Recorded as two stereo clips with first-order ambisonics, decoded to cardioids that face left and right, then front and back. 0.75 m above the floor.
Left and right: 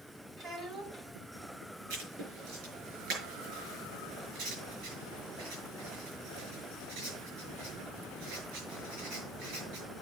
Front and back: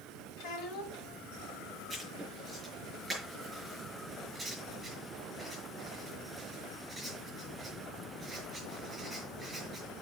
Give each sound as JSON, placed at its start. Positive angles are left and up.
{"t": 0.4, "sound": "a child speaking", "azimuth_deg": -30, "distance_m": 2.5}
{"t": 1.9, "sound": "writing", "azimuth_deg": -105, "distance_m": 5.5}